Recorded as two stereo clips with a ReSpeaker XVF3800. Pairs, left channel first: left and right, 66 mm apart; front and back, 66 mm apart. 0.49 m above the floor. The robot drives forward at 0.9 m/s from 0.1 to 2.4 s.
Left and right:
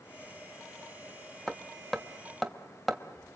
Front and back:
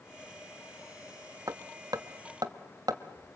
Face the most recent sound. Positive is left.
turn(degrees=175)